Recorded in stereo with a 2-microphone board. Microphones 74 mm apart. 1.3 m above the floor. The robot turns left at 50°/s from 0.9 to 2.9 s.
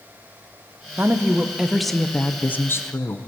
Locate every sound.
1.0 s a woman speaking: 140° right, 0.5 m; by 3.3 s 125° left, 0.5 m